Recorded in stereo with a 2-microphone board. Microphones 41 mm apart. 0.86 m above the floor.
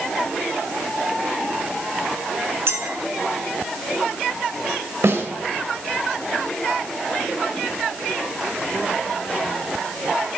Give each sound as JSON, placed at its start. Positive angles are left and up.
{"t": 2.7, "sound": "a clink", "side_deg": -75, "distance_m": 3.0}
{"t": 5.0, "sound": "a snare drum", "side_deg": -80, "distance_m": 4.0}